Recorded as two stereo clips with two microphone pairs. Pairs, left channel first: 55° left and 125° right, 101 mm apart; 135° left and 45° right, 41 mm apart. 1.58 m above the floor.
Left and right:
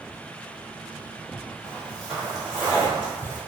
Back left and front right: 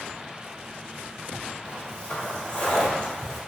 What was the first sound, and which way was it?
Footsteps, 140° left.